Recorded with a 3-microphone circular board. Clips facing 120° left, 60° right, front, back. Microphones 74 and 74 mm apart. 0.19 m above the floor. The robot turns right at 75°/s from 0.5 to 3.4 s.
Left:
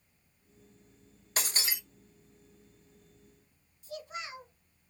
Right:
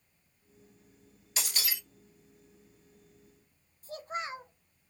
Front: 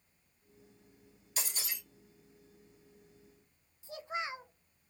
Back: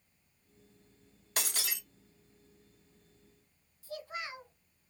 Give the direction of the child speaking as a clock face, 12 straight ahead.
2 o'clock.